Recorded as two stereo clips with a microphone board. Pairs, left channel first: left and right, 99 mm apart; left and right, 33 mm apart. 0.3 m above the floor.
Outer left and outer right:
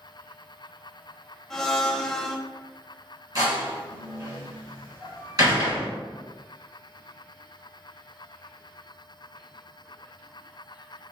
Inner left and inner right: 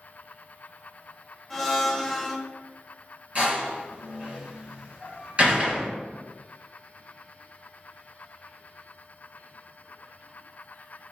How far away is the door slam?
About 1.8 m.